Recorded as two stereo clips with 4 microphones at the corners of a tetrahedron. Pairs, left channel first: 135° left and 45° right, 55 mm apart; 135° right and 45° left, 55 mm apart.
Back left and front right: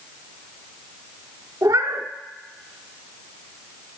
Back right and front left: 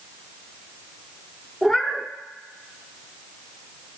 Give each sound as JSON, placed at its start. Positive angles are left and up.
{"t": 1.6, "sound": "a cat meowing", "azimuth_deg": -50, "distance_m": 0.5}